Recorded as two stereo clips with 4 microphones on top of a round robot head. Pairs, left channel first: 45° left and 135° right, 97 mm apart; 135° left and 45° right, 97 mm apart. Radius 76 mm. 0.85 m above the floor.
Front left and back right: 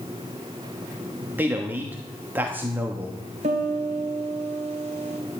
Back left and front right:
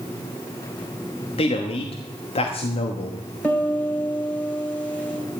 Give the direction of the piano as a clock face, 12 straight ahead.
5 o'clock.